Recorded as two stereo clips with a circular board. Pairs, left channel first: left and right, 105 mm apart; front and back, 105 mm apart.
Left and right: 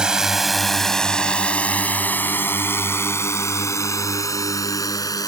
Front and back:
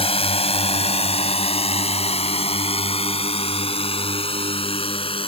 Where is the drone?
10° right; by 5.3 s 35° left.